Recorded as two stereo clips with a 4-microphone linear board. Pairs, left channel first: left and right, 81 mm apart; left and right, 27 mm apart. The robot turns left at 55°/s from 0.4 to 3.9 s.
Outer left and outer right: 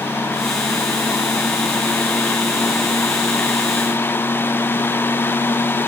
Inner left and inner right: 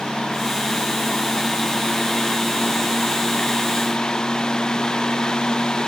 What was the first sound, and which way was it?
Only background noise.